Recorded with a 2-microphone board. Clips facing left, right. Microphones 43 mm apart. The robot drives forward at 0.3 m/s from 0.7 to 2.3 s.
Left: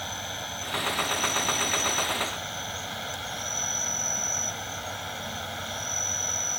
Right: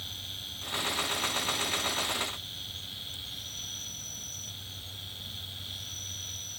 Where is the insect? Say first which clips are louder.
Left 7 dB; 60° left (ahead or behind); by 6.6 s 65° left (ahead or behind).